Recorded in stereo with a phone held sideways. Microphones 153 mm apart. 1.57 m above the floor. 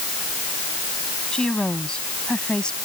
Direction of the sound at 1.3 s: 5° left (ahead or behind).